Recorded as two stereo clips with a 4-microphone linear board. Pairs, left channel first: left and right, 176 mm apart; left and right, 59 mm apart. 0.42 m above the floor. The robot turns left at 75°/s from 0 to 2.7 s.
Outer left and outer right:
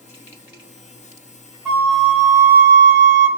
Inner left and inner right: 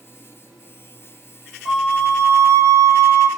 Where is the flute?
Straight ahead, 1.4 m; by 3.3 s 80° right, 1.4 m.